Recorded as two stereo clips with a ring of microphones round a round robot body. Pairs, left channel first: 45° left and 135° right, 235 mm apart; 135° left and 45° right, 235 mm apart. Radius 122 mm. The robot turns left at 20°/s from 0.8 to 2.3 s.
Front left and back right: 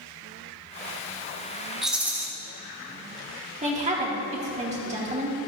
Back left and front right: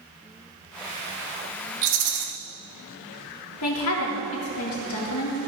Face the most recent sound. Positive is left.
turn(degrees=165)